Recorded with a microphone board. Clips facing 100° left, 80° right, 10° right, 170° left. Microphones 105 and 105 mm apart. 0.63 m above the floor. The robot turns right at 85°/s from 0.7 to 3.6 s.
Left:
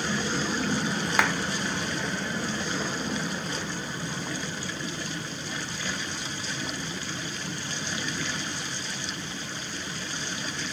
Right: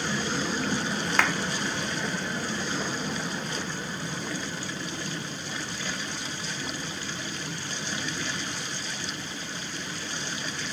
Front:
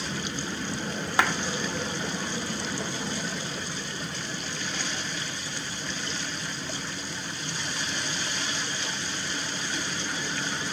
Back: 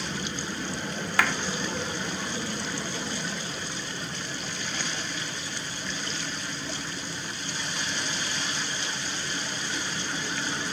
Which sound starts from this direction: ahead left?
A clap, at 1.2 s.